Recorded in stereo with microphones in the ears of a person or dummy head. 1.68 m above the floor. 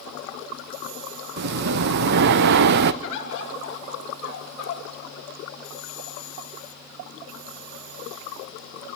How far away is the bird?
About 3 m.